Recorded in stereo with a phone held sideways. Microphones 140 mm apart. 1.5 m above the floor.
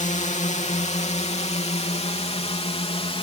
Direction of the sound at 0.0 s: 60° left (ahead or behind).